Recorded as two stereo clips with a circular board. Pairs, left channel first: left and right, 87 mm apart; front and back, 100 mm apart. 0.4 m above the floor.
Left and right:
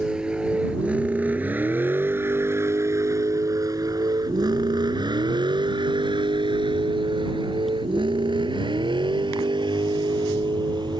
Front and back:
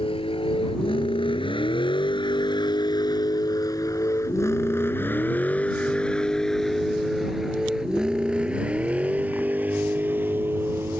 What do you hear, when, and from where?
0.0 s a vehicle: 10° right; by 11.0 s 115° right